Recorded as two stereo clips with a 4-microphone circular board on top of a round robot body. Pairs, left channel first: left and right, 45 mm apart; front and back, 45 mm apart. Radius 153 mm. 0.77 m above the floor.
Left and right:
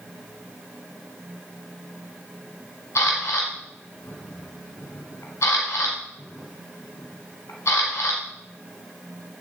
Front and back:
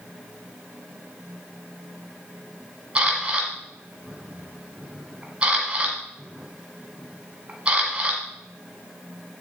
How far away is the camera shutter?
About 1.1 m.